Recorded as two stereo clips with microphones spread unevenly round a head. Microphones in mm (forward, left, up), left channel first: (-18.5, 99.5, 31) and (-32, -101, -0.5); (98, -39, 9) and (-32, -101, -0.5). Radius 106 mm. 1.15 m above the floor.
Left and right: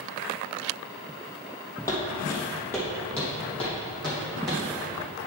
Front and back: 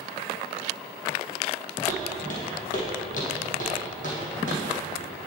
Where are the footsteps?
15° left, 2.5 m; by 4.6 s straight ahead, 4 m.